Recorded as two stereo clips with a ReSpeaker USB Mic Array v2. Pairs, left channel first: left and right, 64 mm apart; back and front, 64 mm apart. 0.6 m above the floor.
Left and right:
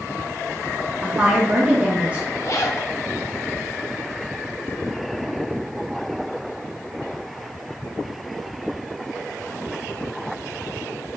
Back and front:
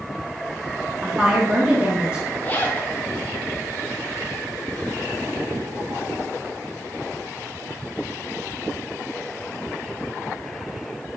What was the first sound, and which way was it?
A woman speaking, 50° right.